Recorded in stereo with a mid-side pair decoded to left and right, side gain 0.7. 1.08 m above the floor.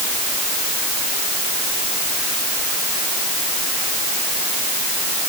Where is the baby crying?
No baby crying in this recording.